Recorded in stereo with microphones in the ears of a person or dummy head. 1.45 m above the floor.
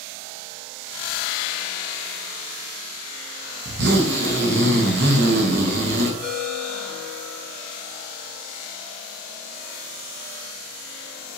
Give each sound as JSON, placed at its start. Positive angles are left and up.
{"t": 3.6, "sound": "a zipper", "side_deg": -55, "distance_m": 0.7}
{"t": 6.2, "sound": "a ringtone", "side_deg": 30, "distance_m": 1.4}